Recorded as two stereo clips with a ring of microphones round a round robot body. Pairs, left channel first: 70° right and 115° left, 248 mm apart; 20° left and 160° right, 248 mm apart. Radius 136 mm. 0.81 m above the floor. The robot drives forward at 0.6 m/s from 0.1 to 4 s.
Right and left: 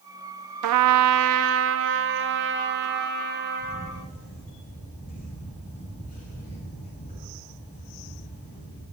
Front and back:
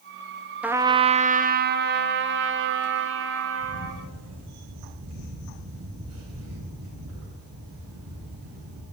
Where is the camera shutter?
125° right, 9 m.